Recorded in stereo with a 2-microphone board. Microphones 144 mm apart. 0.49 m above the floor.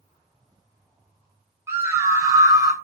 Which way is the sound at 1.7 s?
20° right (ahead or behind).